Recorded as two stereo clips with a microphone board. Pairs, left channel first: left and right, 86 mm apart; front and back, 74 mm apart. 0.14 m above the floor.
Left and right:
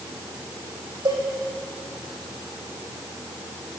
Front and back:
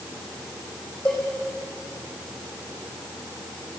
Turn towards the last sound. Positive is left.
turn(degrees=-75)